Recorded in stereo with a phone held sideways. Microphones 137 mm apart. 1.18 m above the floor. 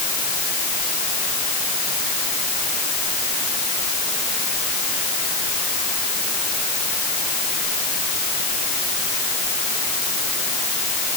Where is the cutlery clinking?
I don't hear cutlery clinking.